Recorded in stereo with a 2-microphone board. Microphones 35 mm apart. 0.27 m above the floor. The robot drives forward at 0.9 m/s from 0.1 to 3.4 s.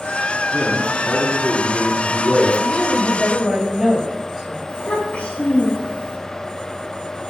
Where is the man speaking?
35° right (ahead or behind), 3.5 m; by 2.5 s 25° right (ahead or behind), 5 m.